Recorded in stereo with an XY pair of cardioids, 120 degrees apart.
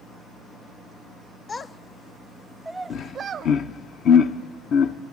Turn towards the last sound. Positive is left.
turn(degrees=65)